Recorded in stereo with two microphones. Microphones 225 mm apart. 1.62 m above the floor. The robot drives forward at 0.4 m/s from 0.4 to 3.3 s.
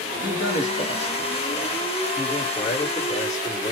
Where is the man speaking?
55° left (ahead or behind), 1.4 m; by 3.7 s 30° left (ahead or behind), 2.5 m.